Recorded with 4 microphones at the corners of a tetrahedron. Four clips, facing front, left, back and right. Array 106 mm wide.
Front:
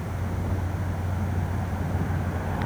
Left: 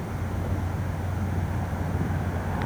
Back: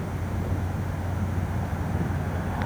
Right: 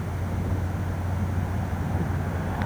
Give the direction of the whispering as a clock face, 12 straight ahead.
No whispering in this recording.